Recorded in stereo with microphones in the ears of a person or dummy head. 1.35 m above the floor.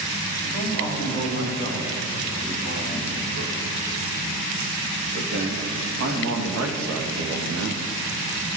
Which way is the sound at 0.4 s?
55° right (ahead or behind).